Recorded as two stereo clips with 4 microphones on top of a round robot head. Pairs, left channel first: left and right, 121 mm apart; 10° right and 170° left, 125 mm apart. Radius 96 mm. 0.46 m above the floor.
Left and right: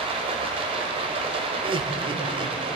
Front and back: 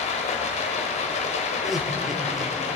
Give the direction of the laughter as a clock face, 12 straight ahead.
3 o'clock.